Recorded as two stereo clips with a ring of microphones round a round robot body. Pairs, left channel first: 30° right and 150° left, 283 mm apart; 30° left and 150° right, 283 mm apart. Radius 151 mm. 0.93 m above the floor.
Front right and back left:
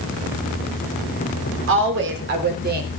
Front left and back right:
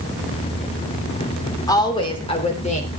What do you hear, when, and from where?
1.7 s a woman speaking: 105° left, 3 m; by 2.9 s 95° left, 3.5 m